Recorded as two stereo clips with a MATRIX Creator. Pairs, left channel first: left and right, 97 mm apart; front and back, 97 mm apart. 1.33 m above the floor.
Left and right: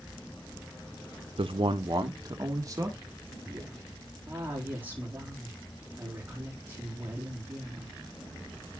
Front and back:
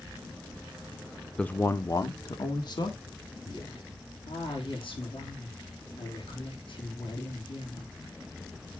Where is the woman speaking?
20° right, 4 m.